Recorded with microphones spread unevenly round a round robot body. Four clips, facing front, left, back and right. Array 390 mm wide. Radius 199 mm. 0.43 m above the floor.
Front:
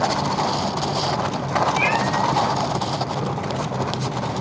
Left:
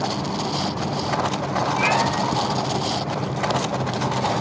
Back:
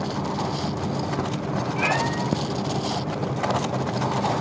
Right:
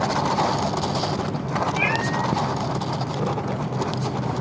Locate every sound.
1.8 s a cat meowing: 110° right, 3 m; by 4.4 s 80° right, 1.8 m